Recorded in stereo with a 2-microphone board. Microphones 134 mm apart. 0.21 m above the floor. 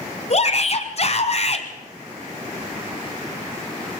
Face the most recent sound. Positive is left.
turn(degrees=50)  # may be behind; listen again after turning